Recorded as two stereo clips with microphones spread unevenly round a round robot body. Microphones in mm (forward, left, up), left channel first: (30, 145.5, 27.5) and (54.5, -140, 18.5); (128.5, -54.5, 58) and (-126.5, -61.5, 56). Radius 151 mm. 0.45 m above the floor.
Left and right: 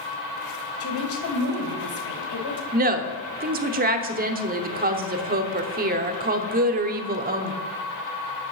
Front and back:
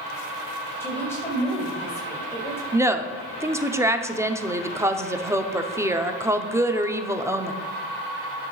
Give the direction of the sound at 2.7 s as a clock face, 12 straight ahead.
4 o'clock.